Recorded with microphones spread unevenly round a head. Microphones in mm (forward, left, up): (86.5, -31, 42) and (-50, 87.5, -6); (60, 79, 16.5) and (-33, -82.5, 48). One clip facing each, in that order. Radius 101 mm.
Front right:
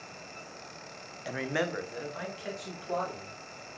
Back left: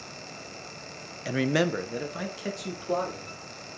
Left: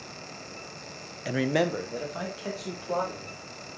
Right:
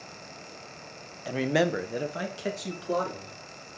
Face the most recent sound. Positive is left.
turn(degrees=180)